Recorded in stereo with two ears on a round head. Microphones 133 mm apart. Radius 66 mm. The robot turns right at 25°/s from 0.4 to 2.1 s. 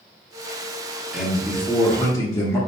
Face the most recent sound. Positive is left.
turn(degrees=20)  # may be behind; listen again after turning